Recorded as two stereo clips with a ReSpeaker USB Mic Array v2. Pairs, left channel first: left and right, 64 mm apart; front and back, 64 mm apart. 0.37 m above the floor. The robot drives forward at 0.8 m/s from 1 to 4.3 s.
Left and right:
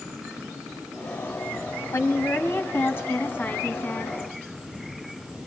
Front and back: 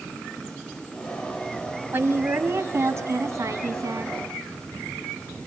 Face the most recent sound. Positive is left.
turn(degrees=150)